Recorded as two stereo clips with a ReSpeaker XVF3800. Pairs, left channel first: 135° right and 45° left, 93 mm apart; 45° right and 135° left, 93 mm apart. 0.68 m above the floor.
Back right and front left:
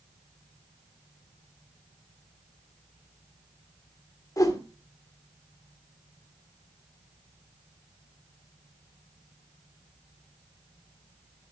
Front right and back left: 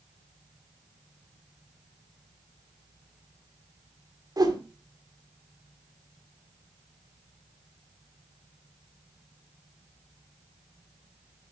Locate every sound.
4.4 s a whoosh: 175° left, 2 m